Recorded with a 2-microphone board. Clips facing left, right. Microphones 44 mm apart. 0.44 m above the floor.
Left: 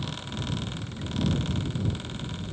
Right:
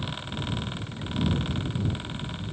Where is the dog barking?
I don't hear a dog barking.